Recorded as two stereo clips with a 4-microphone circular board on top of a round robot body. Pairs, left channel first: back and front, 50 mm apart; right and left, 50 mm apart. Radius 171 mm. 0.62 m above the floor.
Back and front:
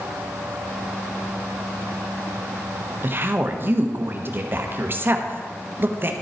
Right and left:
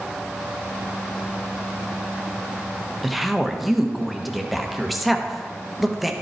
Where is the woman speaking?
Straight ahead, 1.3 m.